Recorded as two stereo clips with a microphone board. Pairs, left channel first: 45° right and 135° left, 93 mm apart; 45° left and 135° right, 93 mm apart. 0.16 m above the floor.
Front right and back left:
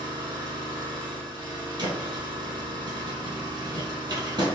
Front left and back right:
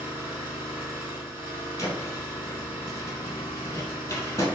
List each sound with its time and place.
0.0 s an engine running: 160° left, 1.6 m
1.8 s a thud: 100° left, 1.6 m